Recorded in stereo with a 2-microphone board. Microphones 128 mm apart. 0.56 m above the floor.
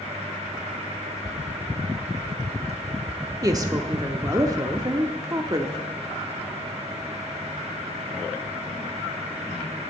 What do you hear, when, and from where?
3.4 s a woman speaking: 30° right (ahead or behind), 0.8 m